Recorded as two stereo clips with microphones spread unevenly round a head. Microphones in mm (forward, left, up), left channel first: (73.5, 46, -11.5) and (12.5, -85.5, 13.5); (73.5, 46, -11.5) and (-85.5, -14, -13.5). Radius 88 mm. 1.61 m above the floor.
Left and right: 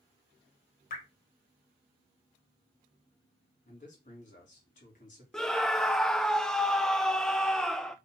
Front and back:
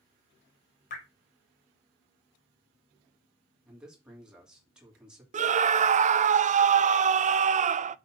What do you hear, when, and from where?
0.9 s dripping: 45° left, 3 m
3.6 s a man speaking: 115° left, 3.5 m
5.3 s a scream: 155° left, 0.6 m